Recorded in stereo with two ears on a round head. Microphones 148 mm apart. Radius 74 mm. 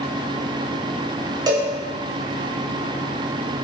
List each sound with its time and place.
1.5 s a cowbell: 25° right (ahead or behind), 0.8 m